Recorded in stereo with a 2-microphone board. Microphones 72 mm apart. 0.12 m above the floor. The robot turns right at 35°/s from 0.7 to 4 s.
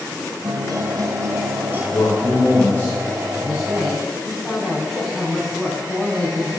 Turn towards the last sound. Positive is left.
turn(degrees=-5)  # may be behind; listen again after turning